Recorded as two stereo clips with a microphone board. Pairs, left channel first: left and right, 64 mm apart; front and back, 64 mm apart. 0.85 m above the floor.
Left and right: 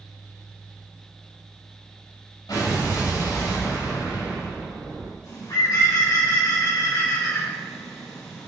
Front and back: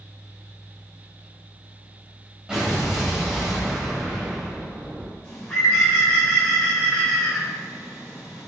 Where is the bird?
75° left, 3 m.